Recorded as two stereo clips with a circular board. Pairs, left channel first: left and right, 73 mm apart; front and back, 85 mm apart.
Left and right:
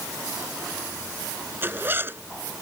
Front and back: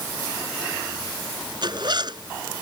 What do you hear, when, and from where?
1.6 s a zipper: 150° right